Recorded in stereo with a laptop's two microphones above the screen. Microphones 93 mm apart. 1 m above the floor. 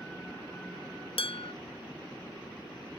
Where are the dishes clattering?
80° left, 0.5 m.